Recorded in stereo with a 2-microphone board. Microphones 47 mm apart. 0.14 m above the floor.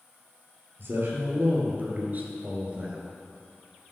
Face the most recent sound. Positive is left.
turn(degrees=-25)  # may be behind; listen again after turning